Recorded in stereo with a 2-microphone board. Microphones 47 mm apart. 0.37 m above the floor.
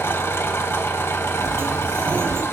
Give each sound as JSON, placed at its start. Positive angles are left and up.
{"t": 0.0, "sound": "an engine running", "side_deg": 65, "distance_m": 0.8}
{"t": 1.4, "sound": "a sliding door", "side_deg": -60, "distance_m": 1.1}